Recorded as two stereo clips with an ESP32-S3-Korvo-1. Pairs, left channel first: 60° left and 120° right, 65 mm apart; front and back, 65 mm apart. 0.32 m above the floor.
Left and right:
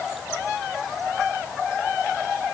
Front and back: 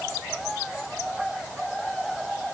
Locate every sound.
Only background noise.